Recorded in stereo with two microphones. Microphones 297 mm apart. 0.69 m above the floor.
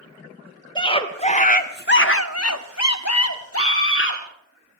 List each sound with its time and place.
0.8 s a scream: 15° left (ahead or behind), 1.9 m; by 4.2 s 40° left (ahead or behind), 1.8 m